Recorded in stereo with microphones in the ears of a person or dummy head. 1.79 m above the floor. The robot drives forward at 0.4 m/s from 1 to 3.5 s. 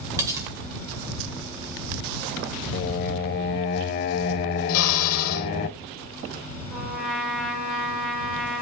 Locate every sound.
0.2 s cutlery clinking: 15° right (ahead or behind), 1.2 m
2.7 s singing: 45° left (ahead or behind), 1.1 m; by 5.7 s 50° left (ahead or behind), 1.1 m
4.7 s a drill: 70° left (ahead or behind), 2.0 m
6.7 s a trumpet: 5° right (ahead or behind), 6 m